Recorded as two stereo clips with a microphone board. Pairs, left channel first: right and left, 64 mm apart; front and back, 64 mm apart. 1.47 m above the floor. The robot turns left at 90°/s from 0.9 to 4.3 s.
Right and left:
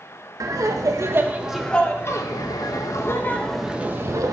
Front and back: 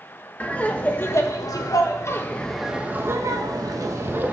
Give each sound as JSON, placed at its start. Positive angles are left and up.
{"t": 0.4, "sound": "laughter", "azimuth_deg": 65, "distance_m": 1.3}